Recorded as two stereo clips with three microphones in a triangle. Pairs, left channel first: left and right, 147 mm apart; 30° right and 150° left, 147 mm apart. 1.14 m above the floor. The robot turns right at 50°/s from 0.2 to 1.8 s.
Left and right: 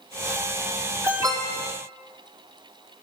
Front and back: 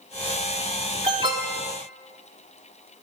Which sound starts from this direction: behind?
An alarm, at 1.0 s.